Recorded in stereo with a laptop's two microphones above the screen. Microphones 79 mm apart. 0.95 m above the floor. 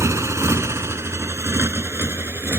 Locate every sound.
0.0 s a motorcycle: 40° right (ahead or behind); by 2.6 s 30° right (ahead or behind)